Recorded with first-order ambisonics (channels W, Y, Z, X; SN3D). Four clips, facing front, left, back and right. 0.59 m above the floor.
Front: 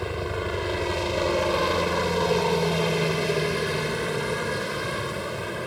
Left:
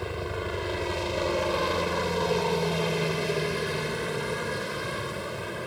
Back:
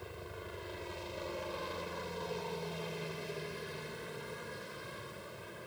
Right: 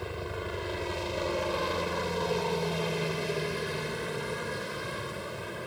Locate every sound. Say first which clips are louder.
0.0 s a helicopter: left 4 dB, front 18 dB; 15° left